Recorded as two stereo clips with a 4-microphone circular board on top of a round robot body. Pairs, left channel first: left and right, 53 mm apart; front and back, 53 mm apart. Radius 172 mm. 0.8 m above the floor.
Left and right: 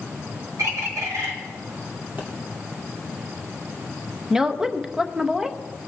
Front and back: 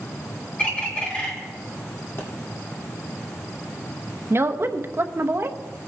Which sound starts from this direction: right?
A bird, at 0.6 s.